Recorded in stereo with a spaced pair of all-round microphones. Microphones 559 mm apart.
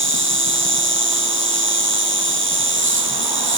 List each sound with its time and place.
0.0 s an insect: 20° right (ahead or behind), 1.8 m